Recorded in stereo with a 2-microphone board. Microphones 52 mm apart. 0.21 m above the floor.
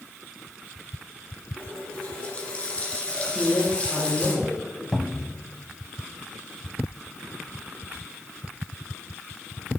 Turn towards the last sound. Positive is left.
turn(degrees=10)  # may be behind; listen again after turning